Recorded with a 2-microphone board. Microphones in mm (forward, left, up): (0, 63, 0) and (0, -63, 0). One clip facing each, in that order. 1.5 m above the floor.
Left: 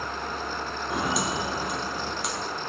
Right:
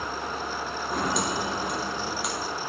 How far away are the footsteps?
About 2.5 m.